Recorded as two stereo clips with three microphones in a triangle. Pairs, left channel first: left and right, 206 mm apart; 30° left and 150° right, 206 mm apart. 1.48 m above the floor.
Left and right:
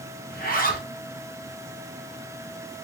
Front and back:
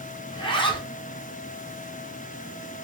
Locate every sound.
0.3 s a zipper: 85° left, 0.7 m